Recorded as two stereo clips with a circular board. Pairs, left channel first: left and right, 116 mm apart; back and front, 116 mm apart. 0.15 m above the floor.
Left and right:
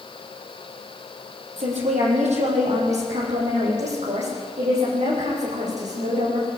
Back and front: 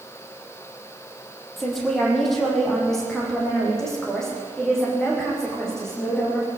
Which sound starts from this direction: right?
A woman speaking, at 1.6 s.